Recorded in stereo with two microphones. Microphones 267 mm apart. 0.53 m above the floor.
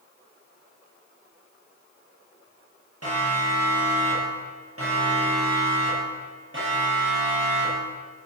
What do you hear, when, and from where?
3.0 s a siren: 65° right (ahead or behind), 9.5 m; by 7.9 s 40° right (ahead or behind), 10.5 m